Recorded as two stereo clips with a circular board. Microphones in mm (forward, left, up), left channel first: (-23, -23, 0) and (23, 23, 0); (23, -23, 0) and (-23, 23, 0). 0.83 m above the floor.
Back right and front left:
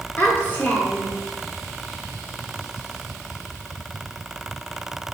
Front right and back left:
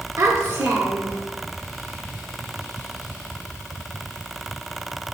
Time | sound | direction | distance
0.2 | a child speaking | 165° left | 1.0 m